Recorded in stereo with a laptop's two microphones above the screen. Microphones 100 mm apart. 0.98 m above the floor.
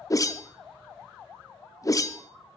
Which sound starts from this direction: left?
A whoosh, at 0.1 s.